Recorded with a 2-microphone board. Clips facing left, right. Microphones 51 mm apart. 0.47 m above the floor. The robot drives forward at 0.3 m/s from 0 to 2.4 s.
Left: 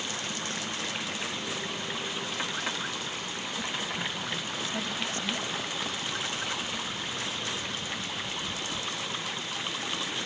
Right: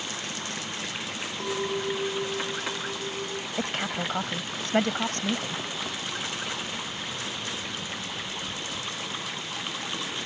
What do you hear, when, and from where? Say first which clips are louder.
1.4 s a clink: right 6 dB; 75° right (ahead or behind)
3.6 s a woman speaking: right 4 dB; 65° right (ahead or behind)